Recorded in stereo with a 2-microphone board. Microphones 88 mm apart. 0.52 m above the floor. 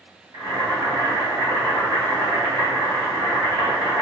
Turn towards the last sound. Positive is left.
turn(degrees=-60)  # may be behind; listen again after turning